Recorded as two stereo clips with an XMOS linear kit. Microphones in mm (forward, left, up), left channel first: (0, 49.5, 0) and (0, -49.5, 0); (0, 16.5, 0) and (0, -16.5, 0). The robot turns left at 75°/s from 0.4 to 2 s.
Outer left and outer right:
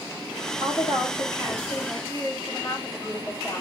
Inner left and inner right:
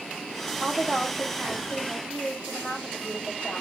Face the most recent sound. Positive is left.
turn(degrees=30)